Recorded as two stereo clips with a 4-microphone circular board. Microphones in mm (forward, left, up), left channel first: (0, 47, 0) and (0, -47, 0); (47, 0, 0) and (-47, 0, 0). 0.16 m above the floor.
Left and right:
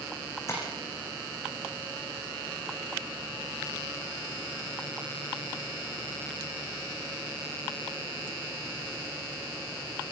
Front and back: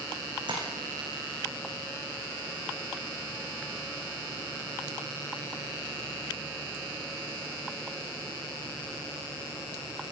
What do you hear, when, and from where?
0.5 s tapping: 150° left, 7 m